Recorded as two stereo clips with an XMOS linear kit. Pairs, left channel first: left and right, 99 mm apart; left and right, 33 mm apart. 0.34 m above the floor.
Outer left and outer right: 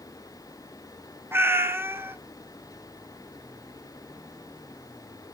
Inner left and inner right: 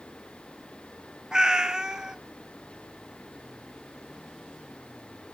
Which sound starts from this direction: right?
A cat meowing, at 1.3 s.